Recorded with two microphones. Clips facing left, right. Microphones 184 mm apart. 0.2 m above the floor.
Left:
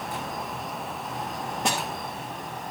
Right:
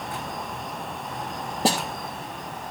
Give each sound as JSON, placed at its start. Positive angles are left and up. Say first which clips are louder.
{"t": 1.6, "sound": "a snare drum", "louder": "right 6 dB", "side_deg": -35, "distance_m": 2.5}